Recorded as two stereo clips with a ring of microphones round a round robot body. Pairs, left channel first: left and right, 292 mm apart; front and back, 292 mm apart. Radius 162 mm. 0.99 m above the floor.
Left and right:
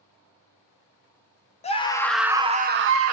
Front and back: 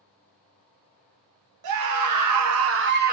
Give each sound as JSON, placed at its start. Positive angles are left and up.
{"t": 1.6, "sound": "a scream", "azimuth_deg": 160, "distance_m": 0.9}